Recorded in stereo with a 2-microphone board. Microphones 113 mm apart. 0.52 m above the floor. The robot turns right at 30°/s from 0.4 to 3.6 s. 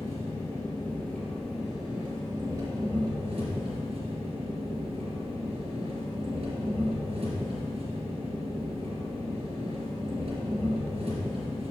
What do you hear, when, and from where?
0.0 s an engine running: 145° left, 1.9 m; by 11.7 s 120° right, 1.9 m